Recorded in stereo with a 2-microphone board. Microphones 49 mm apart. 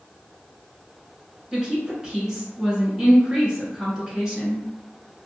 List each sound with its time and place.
1.5 s a woman speaking: 15° right (ahead or behind), 1.3 m